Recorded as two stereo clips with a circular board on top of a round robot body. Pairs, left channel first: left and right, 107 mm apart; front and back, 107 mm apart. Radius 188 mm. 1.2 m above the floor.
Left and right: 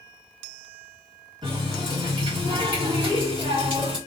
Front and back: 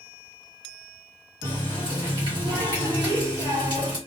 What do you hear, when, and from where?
1.4 s a running tap: 130° right, 1.3 m